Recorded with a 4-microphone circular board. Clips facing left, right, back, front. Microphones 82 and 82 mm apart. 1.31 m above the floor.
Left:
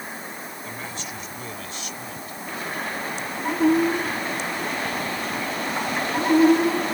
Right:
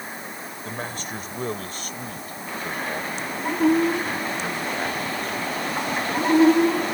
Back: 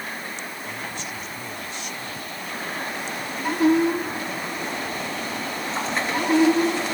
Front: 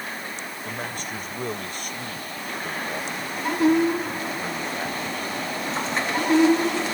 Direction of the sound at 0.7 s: 45° right.